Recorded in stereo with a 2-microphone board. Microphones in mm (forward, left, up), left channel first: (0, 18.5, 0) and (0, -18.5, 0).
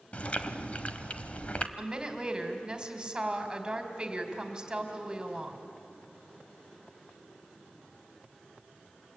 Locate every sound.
0.1 s chewing: 40° left (ahead or behind), 1.1 m
1.8 s a woman speaking: 20° right (ahead or behind), 2.5 m